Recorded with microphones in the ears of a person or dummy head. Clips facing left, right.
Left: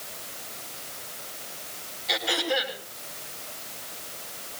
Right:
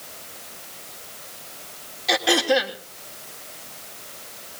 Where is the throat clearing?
90° right, 3 m.